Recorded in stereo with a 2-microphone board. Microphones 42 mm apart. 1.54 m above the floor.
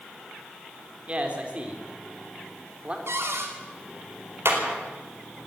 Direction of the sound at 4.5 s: 70° right (ahead or behind).